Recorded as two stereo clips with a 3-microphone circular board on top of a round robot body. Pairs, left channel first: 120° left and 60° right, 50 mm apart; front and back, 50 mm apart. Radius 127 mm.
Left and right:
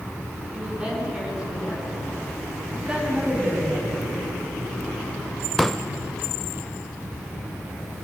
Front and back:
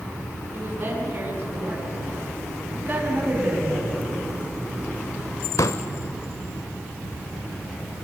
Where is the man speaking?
135° right, 10 m.